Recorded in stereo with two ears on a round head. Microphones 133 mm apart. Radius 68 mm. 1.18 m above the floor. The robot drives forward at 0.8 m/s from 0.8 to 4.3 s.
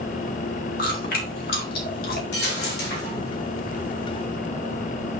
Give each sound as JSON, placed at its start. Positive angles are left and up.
{"t": 0.8, "sound": "chewing", "side_deg": 60, "distance_m": 2.5}
{"t": 2.3, "sound": "a dropped coin", "side_deg": 75, "distance_m": 4.0}